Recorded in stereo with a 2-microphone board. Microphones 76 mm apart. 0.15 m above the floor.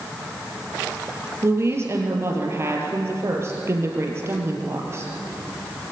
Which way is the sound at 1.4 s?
35° right (ahead or behind).